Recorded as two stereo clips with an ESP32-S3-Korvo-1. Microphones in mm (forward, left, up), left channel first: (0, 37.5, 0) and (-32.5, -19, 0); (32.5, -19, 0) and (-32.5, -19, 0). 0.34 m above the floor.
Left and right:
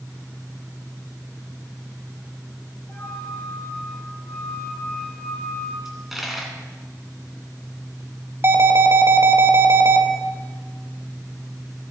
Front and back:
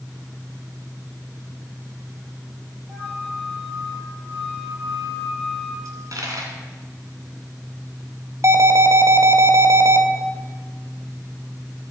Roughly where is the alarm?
Behind.